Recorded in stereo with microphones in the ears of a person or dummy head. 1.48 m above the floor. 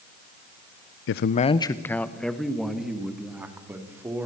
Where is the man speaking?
60° left (ahead or behind), 0.5 m; by 4.3 s 10° right (ahead or behind), 3.5 m.